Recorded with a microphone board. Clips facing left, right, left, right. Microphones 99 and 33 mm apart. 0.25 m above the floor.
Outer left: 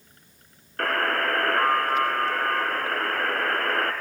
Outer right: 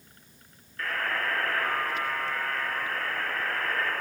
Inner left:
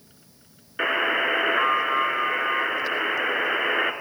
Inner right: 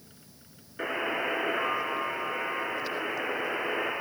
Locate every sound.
0.8 s a buzzer: 70° left (ahead or behind), 1.6 m